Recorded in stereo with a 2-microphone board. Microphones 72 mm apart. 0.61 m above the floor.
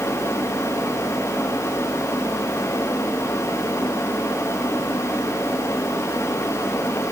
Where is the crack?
No crack in this recording.